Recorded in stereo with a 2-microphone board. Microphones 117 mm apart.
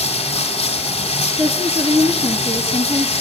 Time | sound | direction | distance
0.0 | running water | 55° left (ahead or behind) | 2.5 m
1.4 | a woman speaking | 55° right (ahead or behind) | 3 m